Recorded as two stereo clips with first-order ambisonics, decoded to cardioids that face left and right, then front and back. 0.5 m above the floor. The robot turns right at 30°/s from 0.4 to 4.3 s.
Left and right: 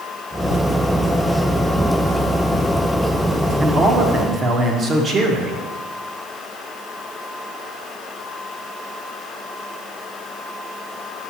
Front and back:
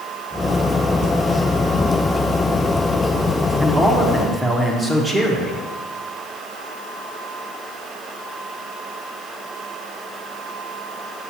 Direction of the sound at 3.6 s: 130° right.